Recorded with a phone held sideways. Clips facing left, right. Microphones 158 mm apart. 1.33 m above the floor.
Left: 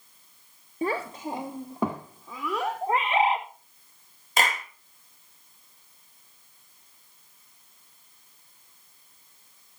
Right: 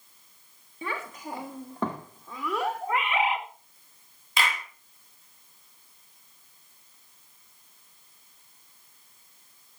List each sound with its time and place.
0.8 s a child speaking: 40° left (ahead or behind), 0.9 m; by 2.8 s centre (ahead or behind), 2.5 m
2.8 s a bird: 30° left (ahead or behind), 2 m
4.4 s a clap: 45° left (ahead or behind), 2 m